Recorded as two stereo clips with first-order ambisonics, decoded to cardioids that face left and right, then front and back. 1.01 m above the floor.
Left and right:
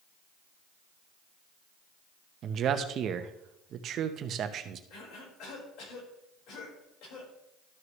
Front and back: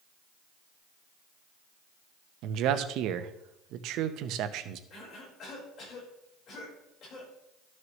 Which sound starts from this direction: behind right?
A man speaking, at 2.4 s.